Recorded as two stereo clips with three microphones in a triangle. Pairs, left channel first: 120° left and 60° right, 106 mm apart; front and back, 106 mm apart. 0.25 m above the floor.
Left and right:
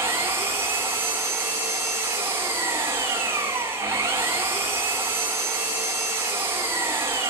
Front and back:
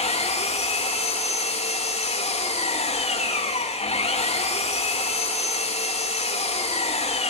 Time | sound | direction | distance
0.0 | an engine running | 10° left | 7.5 m